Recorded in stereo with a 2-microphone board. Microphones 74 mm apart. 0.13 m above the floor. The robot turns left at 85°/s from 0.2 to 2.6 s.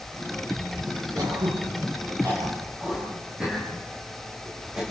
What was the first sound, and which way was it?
Throat clearing, 50° right (ahead or behind).